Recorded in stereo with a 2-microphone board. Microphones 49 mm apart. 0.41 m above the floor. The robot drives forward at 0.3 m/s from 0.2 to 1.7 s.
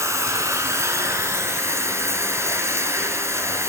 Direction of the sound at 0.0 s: 65° right (ahead or behind).